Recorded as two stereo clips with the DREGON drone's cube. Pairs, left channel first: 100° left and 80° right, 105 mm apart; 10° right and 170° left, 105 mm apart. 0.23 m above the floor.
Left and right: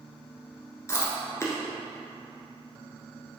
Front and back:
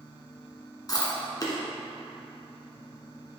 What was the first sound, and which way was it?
Chewing, 40° left.